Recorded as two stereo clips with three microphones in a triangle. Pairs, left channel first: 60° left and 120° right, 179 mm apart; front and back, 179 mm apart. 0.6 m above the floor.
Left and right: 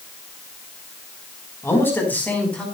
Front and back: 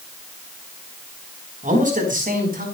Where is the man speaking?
135° left, 5 m; by 2.6 s 145° left, 5.5 m.